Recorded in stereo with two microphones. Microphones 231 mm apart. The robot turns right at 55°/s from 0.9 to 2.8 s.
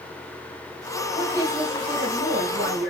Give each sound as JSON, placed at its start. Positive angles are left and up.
{"t": 1.1, "sound": "a woman speaking", "azimuth_deg": -175, "distance_m": 2.0}